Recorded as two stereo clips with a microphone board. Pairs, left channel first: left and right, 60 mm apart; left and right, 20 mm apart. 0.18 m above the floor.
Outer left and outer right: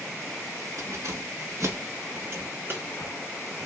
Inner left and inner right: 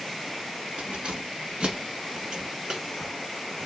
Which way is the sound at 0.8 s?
55° right (ahead or behind).